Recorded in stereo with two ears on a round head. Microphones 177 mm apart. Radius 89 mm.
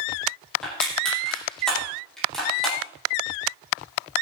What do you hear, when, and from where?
0.6 s crushing: centre (ahead or behind), 8.5 m